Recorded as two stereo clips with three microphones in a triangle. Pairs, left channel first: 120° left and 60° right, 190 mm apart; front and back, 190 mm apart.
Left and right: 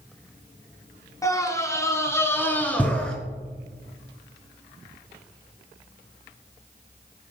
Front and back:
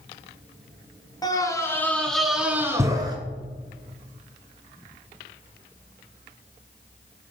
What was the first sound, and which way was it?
A scream, 60° left.